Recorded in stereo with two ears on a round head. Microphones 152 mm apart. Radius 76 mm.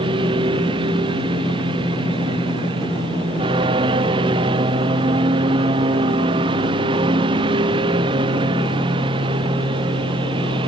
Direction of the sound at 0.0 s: 30° right (ahead or behind).